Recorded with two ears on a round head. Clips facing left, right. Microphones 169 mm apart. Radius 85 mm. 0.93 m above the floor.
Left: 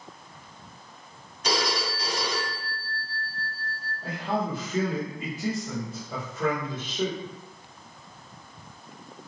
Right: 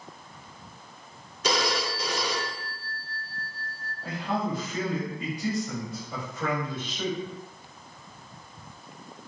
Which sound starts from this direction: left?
A man speaking, at 4.0 s.